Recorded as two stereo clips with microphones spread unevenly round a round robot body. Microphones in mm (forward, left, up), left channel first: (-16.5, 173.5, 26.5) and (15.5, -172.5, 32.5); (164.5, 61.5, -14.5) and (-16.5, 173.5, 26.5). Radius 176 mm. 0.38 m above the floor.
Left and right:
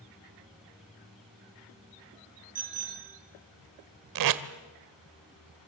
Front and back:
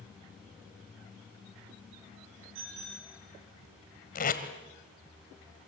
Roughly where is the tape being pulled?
Right.